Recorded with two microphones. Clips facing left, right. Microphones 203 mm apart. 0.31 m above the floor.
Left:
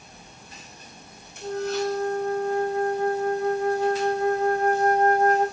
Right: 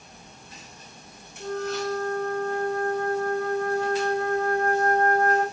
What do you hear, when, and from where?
1.4 s a flute: 75° right (ahead or behind), 5.5 m